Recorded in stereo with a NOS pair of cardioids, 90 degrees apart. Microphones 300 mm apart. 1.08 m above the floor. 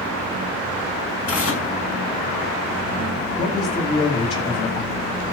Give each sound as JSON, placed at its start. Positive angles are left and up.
{"t": 1.3, "sound": "tearing paper", "azimuth_deg": 45, "distance_m": 5.5}
{"t": 3.4, "sound": "a man speaking", "azimuth_deg": 50, "distance_m": 8.5}